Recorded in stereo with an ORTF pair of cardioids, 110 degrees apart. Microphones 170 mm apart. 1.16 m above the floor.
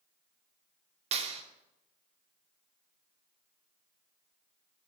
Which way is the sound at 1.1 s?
40° right.